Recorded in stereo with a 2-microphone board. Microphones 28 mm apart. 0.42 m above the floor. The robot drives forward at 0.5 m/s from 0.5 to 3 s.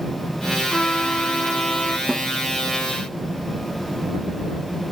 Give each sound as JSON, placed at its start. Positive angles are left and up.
{"t": 0.7, "sound": "a trumpet", "side_deg": 35}
{"t": 2.1, "sound": "a snare drum", "side_deg": -30}